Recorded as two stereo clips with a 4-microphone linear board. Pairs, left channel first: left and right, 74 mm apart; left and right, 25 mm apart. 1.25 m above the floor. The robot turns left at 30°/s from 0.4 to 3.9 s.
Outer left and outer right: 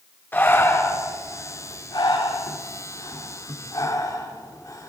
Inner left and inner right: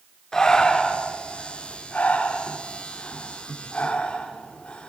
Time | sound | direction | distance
0.3 | breathing | 25° left (ahead or behind) | 3 m